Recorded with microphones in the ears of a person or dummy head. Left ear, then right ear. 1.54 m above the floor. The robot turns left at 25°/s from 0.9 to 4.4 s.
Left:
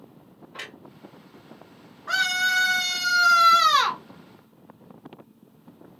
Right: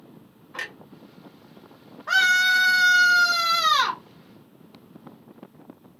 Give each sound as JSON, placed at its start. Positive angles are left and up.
{"t": 0.5, "sound": "a clunk", "side_deg": -50, "distance_m": 1.6}
{"t": 2.1, "sound": "a scream", "azimuth_deg": -165, "distance_m": 0.8}